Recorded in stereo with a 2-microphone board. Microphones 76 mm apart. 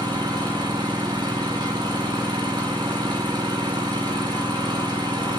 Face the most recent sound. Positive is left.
turn(degrees=-70)  # may be behind; listen again after turning